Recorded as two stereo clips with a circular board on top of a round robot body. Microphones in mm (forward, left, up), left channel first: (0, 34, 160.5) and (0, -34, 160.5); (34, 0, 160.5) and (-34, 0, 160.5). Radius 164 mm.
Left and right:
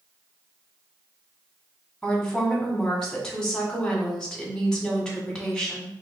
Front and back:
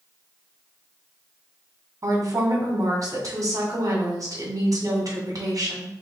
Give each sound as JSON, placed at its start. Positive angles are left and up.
{"t": 2.0, "sound": "a woman speaking", "azimuth_deg": 170, "distance_m": 1.8}